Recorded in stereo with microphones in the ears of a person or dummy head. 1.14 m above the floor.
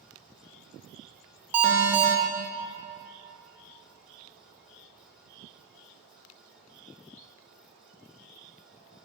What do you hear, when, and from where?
1.5 s an alarm: 10° right (ahead or behind), 0.7 m